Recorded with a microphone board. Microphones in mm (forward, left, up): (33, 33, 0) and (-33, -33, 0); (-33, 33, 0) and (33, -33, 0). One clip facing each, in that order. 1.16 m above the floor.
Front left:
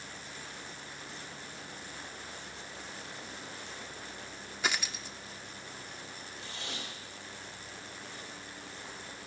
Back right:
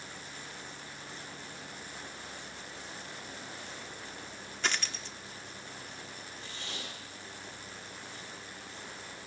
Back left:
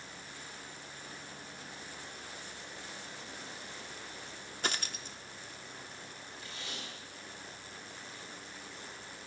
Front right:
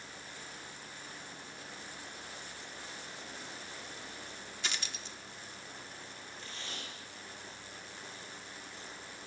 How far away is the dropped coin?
About 0.9 m.